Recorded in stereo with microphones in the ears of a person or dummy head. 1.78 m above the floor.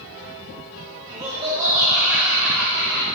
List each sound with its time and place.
1.1 s laughter: 20° right (ahead or behind), 2.5 m; by 3.1 s 25° left (ahead or behind), 1.4 m